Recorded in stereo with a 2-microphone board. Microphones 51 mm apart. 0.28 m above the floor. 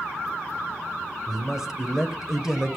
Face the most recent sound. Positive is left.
turn(degrees=-10)  # may be behind; listen again after turning